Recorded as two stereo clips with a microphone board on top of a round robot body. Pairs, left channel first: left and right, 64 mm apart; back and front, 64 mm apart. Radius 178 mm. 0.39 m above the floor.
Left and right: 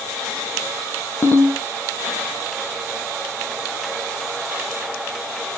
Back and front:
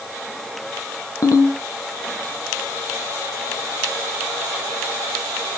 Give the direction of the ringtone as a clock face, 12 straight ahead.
7 o'clock.